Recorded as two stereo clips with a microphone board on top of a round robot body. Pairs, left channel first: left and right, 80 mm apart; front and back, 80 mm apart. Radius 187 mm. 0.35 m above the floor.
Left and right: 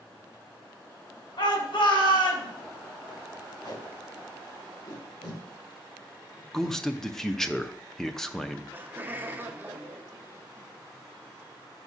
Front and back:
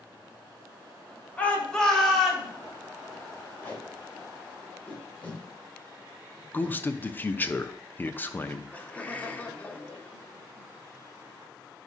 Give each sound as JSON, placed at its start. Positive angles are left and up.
{"t": 1.4, "sound": "a shout", "azimuth_deg": 70, "distance_m": 2.0}
{"t": 3.6, "sound": "tape being pulled", "azimuth_deg": 70, "distance_m": 2.5}
{"t": 6.5, "sound": "a man speaking", "azimuth_deg": 15, "distance_m": 0.8}
{"t": 8.7, "sound": "laughter", "azimuth_deg": -50, "distance_m": 1.3}